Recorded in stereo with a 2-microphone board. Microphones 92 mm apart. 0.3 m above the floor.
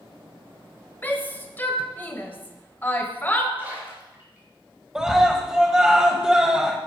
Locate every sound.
1.0 s a shout: 20° left (ahead or behind), 1.4 m
3.6 s a splash: 20° right (ahead or behind), 5.5 m
5.0 s a scream: 5° right (ahead or behind), 1.5 m